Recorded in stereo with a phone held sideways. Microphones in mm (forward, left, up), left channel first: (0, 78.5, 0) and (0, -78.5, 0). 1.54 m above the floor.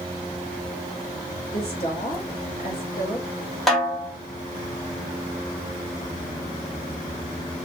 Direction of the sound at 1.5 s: 65° left (ahead or behind).